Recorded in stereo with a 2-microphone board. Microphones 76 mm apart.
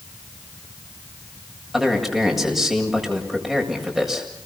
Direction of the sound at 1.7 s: Centre (ahead or behind).